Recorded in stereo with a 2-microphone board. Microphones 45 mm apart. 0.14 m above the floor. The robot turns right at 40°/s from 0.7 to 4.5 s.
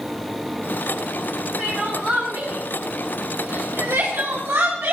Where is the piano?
No piano in this recording.